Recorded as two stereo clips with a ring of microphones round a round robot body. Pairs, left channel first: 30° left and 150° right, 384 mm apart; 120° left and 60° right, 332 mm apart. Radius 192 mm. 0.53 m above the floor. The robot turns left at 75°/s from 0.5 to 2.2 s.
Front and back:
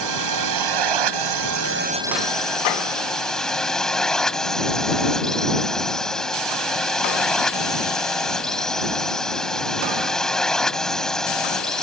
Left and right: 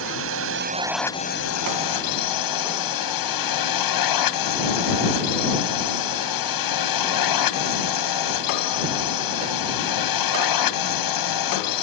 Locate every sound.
0.0 s a drone: 115° right; by 11.8 s 120° left